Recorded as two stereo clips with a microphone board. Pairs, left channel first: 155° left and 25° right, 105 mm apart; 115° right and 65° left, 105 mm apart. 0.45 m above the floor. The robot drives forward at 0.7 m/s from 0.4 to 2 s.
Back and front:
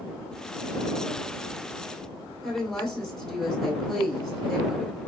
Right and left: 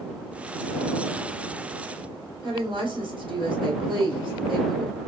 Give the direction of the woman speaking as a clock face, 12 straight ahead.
10 o'clock.